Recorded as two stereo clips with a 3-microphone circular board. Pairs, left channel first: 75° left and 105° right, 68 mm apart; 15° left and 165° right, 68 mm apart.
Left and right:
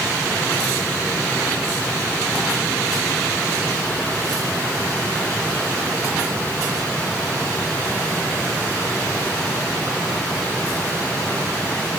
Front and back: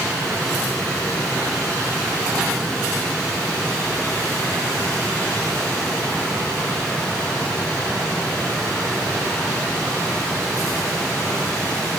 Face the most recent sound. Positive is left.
No sound to turn to.